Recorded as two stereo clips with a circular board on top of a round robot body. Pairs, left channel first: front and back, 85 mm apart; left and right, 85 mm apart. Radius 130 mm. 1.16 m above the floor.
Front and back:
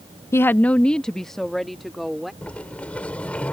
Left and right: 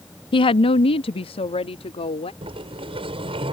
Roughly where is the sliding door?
Right.